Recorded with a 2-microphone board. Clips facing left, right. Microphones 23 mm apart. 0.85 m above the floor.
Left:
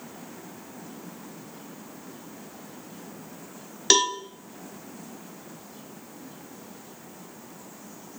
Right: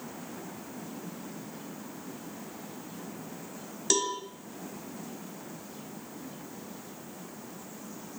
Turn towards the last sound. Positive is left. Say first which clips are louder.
# left 8 dB
turn(degrees=55)  # may be behind; listen again after turning